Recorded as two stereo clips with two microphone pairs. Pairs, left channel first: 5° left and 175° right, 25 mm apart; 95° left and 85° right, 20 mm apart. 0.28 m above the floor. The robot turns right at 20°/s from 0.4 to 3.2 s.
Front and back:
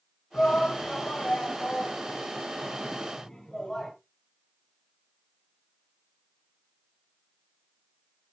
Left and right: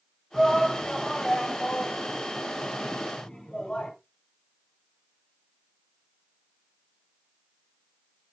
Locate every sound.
0.3 s a shout: 15° left, 3 m; by 3.9 s 75° left, 3 m